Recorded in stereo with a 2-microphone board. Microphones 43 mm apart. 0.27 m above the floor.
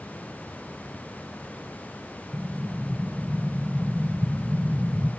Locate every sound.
2.3 s an explosion: 10° left (ahead or behind), 0.6 m